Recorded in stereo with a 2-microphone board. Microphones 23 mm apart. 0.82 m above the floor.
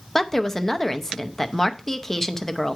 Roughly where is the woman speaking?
Centre.